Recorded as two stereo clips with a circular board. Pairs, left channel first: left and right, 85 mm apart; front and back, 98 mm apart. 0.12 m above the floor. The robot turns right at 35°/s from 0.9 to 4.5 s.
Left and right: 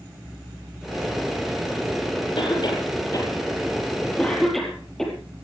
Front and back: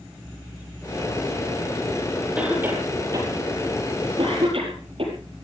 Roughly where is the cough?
Left.